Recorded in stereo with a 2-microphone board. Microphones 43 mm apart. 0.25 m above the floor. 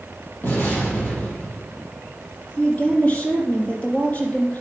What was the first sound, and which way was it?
An explosion, 55° left (ahead or behind).